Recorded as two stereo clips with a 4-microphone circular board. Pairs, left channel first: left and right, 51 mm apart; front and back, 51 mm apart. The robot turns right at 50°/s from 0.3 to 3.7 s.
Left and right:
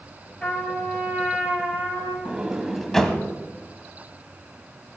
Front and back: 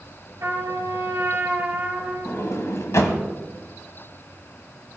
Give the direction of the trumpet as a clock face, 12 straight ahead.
7 o'clock.